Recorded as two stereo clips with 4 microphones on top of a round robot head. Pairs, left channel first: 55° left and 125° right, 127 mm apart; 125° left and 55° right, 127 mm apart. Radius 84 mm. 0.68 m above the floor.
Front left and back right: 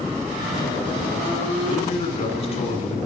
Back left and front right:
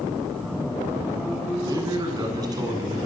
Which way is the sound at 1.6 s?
10° left.